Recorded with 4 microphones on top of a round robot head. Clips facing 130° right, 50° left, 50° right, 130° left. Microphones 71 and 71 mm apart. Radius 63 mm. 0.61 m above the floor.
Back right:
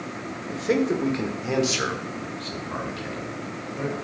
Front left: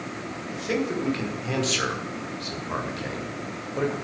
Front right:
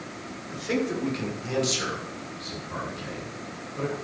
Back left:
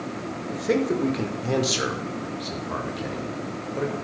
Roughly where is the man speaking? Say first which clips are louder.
Back right 5 dB, back left 4 dB; behind.